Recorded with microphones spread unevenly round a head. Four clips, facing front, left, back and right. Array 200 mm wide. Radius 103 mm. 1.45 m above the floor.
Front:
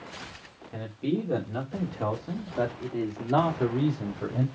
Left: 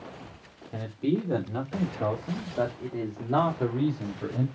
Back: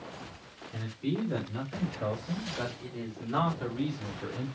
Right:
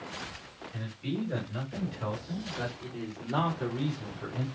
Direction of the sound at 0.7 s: 60° left.